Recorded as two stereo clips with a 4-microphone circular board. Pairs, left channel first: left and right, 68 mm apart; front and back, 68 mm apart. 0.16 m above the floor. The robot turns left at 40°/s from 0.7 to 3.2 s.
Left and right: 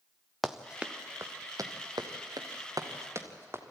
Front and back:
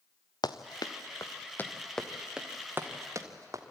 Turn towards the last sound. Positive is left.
turn(degrees=-140)